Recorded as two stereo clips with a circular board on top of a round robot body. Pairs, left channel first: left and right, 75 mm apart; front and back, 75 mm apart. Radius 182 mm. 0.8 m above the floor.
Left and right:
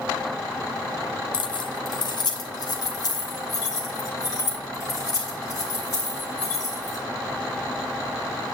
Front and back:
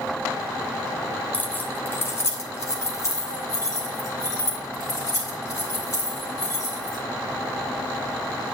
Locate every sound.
1.3 s keys jangling: 75° left, 0.7 m; by 7.0 s 40° left, 4 m